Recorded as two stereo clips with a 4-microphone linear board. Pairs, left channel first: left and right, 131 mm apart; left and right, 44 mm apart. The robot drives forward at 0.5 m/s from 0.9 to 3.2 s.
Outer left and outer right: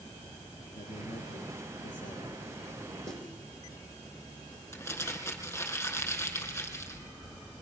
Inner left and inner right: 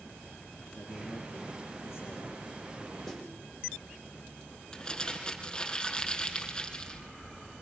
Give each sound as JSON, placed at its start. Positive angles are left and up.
{"t": 0.7, "sound": "a man speaking", "side_deg": 85, "distance_m": 9.0}
{"t": 3.1, "sound": "a snare drum", "side_deg": 5, "distance_m": 6.5}
{"t": 4.7, "sound": "crumpling", "side_deg": 20, "distance_m": 4.0}